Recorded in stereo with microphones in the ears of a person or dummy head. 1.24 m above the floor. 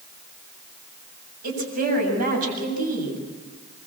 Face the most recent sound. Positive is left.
turn(degrees=-50)  # may be behind; listen again after turning